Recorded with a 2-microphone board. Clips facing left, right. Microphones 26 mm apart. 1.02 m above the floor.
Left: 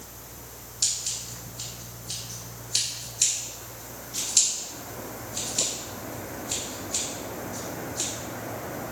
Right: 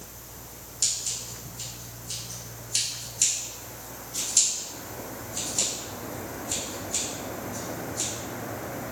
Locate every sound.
0.8 s scissors: 25° left (ahead or behind), 3.5 m